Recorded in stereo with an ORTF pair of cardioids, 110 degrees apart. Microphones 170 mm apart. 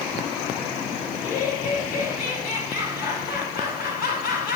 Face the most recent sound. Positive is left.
turn(degrees=65)